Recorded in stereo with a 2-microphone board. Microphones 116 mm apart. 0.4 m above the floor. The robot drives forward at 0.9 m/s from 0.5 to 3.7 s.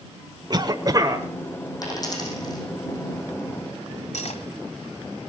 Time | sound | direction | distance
0.5 | a cough | 40° right (ahead or behind) | 1.0 m
1.8 | a dropped coin | 35° left (ahead or behind) | 6.5 m
4.1 | cutlery clinking | 75° left (ahead or behind) | 1.3 m